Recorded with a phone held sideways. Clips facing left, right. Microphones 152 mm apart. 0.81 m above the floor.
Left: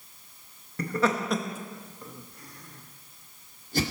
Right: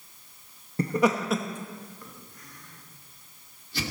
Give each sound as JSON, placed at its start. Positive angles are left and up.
{"t": 0.8, "sound": "laughter", "side_deg": -25, "distance_m": 1.0}